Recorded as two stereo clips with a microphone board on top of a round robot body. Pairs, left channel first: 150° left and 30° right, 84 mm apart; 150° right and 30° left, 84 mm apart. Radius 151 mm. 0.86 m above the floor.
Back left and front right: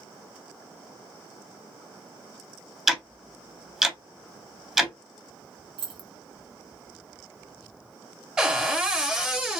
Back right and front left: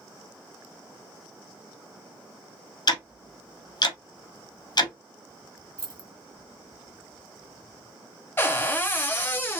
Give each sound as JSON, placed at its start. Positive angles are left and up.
{"t": 2.9, "sound": "ticking", "azimuth_deg": -115, "distance_m": 0.7}
{"t": 5.8, "sound": "keys jangling", "azimuth_deg": -15, "distance_m": 1.0}
{"t": 8.4, "sound": "a cupboard door", "azimuth_deg": -105, "distance_m": 1.1}